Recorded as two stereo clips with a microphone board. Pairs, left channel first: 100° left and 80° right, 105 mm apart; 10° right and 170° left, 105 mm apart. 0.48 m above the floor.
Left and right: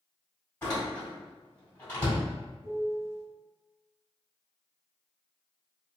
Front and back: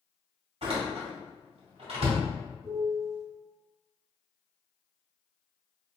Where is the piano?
140° right, 1.6 m.